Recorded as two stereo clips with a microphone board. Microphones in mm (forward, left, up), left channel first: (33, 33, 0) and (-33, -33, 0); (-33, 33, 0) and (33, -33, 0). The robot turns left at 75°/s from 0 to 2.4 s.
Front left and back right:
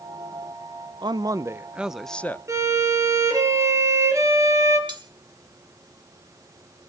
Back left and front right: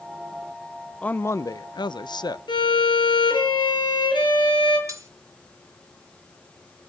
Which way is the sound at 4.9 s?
100° right.